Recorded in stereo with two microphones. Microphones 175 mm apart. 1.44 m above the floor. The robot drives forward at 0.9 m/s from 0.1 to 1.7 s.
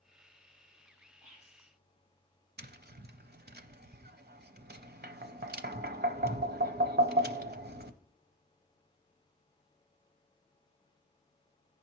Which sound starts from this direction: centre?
Whispering, at 1.2 s.